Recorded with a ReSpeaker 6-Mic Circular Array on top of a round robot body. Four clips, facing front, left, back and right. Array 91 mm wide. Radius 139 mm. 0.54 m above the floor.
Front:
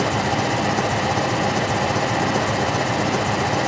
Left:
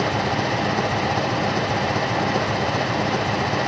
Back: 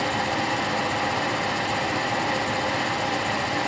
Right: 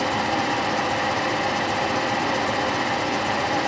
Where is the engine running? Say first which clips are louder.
Left 1 dB, front 4 dB; 50° left.